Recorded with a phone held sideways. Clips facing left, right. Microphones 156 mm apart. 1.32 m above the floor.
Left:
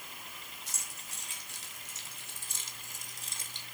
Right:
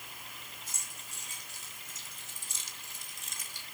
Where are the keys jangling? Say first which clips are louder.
Left 1 dB; 85° left, 4.5 m; by 3.6 s 20° left (ahead or behind), 2 m.